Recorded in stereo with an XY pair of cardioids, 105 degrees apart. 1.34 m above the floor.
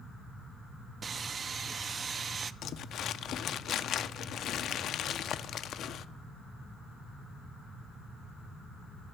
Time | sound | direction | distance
1.0 | sawing | 45° right | 0.5 m
2.6 | crumpling | 65° left | 0.5 m